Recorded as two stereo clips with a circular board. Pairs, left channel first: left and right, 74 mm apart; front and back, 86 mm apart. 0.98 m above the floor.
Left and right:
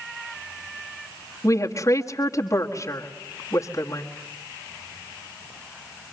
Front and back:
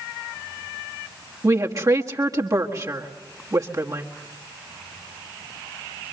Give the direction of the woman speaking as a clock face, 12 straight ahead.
8 o'clock.